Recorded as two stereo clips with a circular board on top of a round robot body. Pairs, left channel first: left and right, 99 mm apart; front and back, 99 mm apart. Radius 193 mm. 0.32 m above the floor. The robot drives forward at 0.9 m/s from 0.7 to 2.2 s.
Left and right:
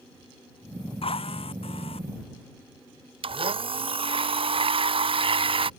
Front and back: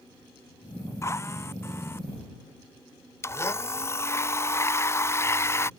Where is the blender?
65° right.